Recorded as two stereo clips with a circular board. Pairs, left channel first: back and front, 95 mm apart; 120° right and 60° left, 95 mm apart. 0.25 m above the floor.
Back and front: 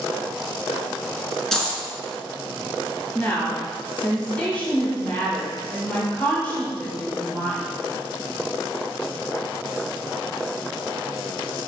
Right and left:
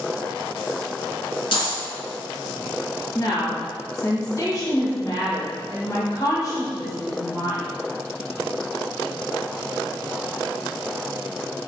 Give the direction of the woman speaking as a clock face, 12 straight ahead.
4 o'clock.